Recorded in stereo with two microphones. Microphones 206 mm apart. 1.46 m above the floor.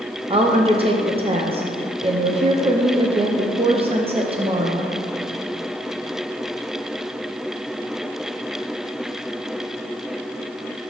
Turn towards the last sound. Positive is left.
turn(degrees=-30)  # may be behind; listen again after turning